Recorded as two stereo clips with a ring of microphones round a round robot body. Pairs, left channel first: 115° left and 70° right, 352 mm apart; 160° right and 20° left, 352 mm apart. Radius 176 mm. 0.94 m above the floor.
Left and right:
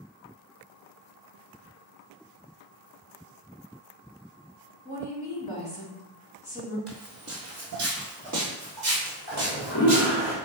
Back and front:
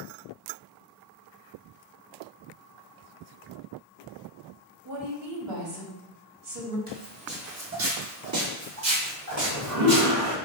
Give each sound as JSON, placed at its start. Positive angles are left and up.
{"t": 4.8, "sound": "a woman speaking", "azimuth_deg": 15, "distance_m": 1.8}
{"t": 6.9, "sound": "footsteps", "azimuth_deg": -35, "distance_m": 1.3}
{"t": 9.3, "sound": "a toilet flushing", "azimuth_deg": 20, "distance_m": 1.5}